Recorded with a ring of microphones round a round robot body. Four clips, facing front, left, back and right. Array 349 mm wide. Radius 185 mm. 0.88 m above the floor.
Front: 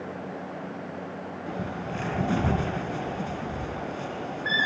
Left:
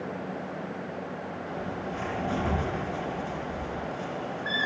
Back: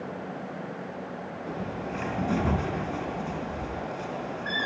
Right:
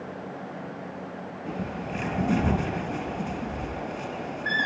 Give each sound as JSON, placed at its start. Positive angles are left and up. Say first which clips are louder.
{"t": 1.5, "sound": "a bird", "louder": "right 3 dB, front 1 dB", "azimuth_deg": -55, "distance_m": 3.5}